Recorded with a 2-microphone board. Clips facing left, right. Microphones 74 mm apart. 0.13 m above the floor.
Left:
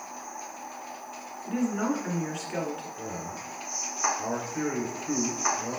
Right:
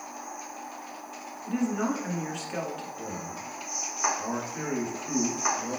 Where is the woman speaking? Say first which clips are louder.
Even; centre (ahead or behind), 1.2 m.